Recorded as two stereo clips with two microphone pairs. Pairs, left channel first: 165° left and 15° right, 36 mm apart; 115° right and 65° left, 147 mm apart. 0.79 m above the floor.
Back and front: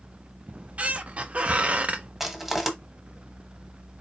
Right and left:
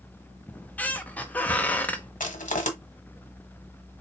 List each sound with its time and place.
0.5 s a squeak: 45° right, 0.6 m
2.2 s crushing: 95° right, 1.1 m